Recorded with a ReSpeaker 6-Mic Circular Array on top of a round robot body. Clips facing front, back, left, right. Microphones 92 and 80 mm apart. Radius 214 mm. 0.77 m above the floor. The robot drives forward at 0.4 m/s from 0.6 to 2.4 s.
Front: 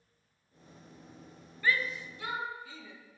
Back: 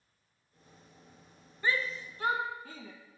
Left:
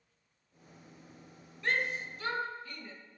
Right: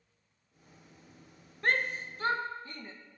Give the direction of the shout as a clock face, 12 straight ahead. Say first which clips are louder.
Front 1 dB, right 2 dB; 4 o'clock.